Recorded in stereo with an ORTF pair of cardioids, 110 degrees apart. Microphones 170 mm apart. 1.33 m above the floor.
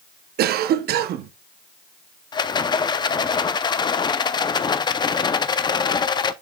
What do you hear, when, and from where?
0.4 s a cough: 65° right, 0.8 m
2.3 s a rattle: 25° left, 0.5 m